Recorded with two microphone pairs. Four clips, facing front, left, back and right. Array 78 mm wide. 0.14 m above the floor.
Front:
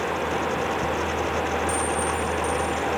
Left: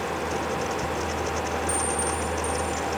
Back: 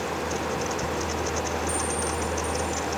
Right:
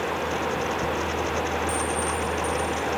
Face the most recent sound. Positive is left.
turn(degrees=-10)